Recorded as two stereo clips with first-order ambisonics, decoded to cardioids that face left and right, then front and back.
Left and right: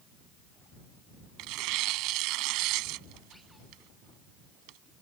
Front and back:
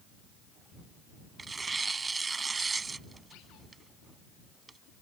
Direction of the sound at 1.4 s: 105° right.